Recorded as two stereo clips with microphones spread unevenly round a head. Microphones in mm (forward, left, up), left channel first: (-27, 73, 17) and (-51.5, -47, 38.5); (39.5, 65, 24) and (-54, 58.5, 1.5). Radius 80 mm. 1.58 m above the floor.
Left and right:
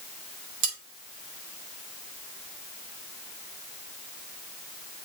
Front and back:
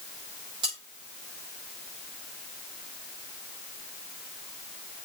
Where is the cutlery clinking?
110° right, 4.5 m.